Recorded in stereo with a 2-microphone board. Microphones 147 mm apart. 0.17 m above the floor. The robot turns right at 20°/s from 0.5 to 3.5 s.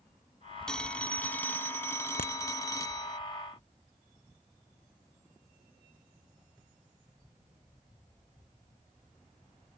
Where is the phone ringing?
5° left (ahead or behind); by 3.2 s 25° left (ahead or behind).